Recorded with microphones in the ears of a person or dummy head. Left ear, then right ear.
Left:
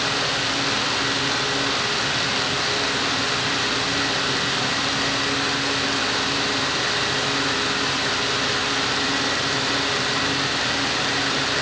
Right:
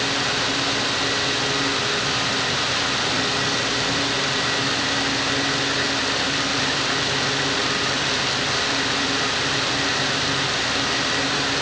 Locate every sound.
Only background noise.